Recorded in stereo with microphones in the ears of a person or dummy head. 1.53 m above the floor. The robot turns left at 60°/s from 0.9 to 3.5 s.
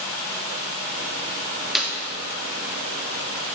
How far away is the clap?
About 2 m.